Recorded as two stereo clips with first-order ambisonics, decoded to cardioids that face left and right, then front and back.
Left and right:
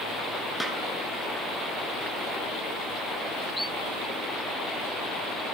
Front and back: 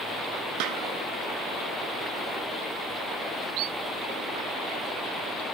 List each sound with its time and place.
0.6 s a snare drum: straight behind, 1.8 m